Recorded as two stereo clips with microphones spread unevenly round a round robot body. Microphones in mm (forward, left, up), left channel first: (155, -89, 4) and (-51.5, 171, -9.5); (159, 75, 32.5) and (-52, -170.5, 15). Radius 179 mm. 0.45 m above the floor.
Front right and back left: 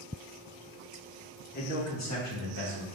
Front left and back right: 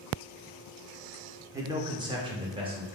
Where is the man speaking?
70° right, 0.7 m; by 2.9 s 60° right, 1.4 m.